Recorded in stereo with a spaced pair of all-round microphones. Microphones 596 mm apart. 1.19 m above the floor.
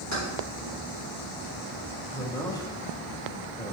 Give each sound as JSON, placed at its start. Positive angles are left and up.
{"t": 0.1, "sound": "keys jangling", "side_deg": 30, "distance_m": 2.5}
{"t": 2.1, "sound": "a man speaking", "side_deg": 5, "distance_m": 1.0}